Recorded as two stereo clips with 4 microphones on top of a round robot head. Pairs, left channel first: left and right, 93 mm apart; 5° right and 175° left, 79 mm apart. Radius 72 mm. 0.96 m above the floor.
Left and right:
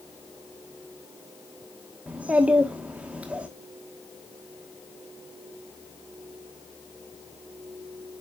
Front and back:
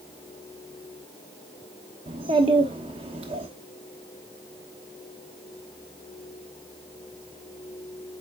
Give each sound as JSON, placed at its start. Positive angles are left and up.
{"t": 2.1, "sound": "a child speaking", "azimuth_deg": -165, "distance_m": 1.1}